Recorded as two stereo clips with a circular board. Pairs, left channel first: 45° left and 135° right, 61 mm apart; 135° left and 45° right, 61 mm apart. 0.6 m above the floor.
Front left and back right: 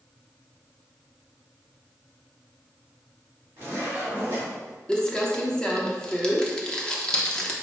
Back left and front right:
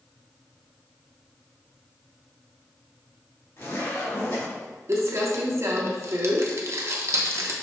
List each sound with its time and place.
3.6 s a zipper: 175° left, 1.7 m
4.9 s crumpling: 30° right, 0.6 m